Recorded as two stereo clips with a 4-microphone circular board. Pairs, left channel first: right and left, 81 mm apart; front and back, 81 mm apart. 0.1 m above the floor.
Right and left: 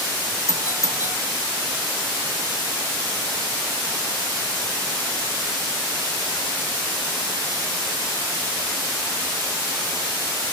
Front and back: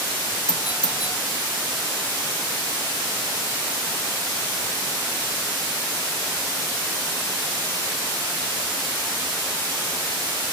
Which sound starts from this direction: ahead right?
A doorbell, at 0.5 s.